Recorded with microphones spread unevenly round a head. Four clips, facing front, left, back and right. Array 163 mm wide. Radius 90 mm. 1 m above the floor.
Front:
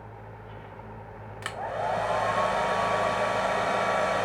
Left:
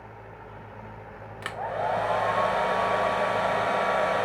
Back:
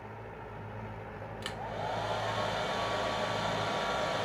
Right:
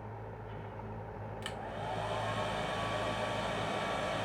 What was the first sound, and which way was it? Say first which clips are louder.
A hair dryer: left 13 dB, front 8 dB; 60° left.